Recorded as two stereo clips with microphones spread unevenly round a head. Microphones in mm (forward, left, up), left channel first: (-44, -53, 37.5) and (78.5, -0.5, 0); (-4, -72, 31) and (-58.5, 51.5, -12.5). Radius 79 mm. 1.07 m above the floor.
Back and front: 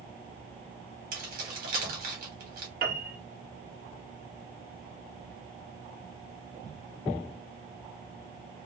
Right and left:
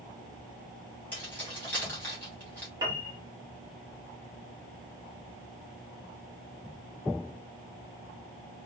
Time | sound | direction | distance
1.1 | keys jangling | 10° left | 1.5 m
2.8 | a piano | 45° left | 1.0 m